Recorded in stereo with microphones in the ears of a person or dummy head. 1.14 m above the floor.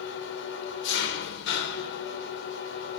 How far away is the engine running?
About 2.5 m.